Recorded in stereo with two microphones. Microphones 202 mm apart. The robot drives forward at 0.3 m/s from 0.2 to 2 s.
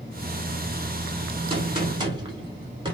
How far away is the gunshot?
About 1.1 m.